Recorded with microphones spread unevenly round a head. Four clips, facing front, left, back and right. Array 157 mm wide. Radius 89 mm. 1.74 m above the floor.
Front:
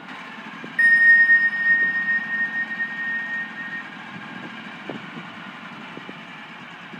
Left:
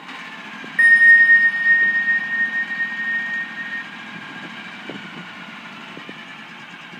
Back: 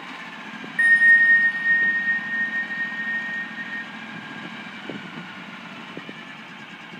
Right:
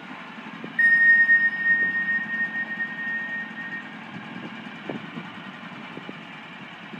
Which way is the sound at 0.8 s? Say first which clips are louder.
Left 6 dB, front 1 dB; 80° left.